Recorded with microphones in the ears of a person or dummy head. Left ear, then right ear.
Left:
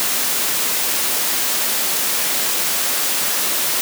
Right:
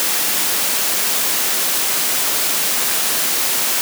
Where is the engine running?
No engine running in this recording.